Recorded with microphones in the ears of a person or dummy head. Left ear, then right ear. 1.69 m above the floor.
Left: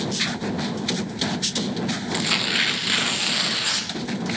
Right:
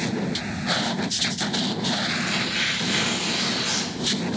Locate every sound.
2.1 s tearing paper: 40° left (ahead or behind), 0.9 m